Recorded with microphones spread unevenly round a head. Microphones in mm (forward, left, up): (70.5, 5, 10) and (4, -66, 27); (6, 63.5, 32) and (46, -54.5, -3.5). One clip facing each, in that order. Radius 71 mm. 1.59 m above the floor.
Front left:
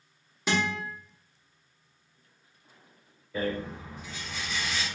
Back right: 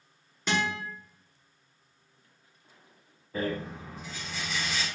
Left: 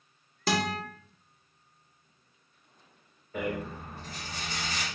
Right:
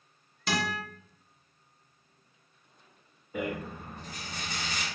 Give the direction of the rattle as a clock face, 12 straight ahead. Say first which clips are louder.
Front left 1 dB, left 1 dB; 5 o'clock.